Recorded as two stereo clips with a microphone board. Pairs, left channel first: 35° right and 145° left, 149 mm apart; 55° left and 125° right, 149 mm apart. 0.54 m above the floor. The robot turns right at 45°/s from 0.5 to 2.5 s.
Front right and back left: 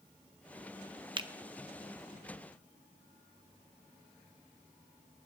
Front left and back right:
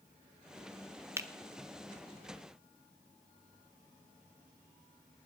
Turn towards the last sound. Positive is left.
turn(degrees=-125)